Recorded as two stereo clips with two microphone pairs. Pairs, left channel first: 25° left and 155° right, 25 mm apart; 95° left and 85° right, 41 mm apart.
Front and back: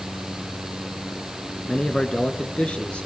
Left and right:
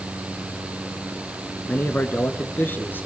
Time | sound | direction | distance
1.7 | a man speaking | 70° left | 1.6 m